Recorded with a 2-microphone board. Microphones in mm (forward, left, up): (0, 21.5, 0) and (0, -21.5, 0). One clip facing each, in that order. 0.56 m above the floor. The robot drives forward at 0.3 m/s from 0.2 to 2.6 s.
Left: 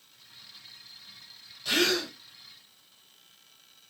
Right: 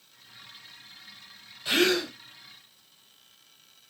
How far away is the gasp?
About 1.1 m.